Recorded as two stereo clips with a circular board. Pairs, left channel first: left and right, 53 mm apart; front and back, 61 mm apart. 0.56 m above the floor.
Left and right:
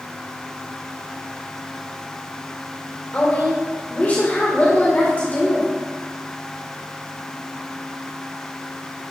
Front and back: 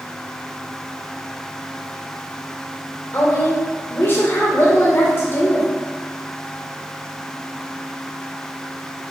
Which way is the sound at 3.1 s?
40° left.